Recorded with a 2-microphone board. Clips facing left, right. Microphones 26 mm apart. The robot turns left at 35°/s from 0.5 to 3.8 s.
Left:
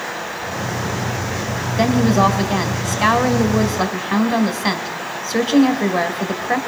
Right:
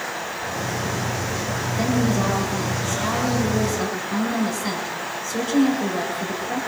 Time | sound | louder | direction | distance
1.8 | a woman speaking | left 7 dB | 130° left | 2.5 m